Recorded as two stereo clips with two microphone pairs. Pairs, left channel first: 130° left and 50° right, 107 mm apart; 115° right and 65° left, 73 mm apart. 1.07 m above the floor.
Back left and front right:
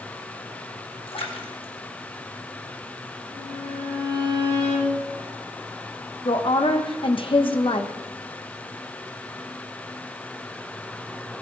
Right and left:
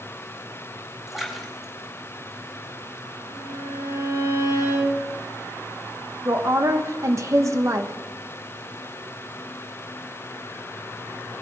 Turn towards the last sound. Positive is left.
turn(degrees=105)